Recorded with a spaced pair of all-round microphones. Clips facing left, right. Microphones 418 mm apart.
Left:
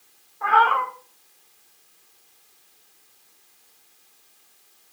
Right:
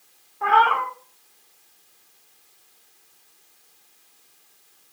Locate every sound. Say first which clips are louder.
0.4 s a cat meowing: right 1 dB; 50° right (ahead or behind), 0.5 m